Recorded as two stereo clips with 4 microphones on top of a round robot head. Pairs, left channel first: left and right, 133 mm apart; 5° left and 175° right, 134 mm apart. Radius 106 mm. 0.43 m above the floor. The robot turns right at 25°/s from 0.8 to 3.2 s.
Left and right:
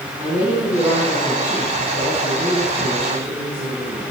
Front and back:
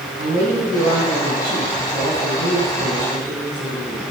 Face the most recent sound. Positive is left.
turn(degrees=-115)